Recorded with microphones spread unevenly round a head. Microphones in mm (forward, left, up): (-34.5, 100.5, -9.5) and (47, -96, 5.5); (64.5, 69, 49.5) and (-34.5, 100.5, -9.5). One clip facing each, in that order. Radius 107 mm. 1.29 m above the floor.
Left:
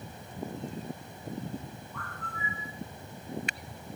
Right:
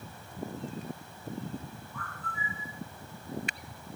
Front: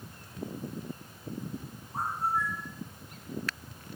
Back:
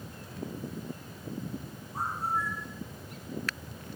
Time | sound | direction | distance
1.9 | a bird | 15° left | 2 m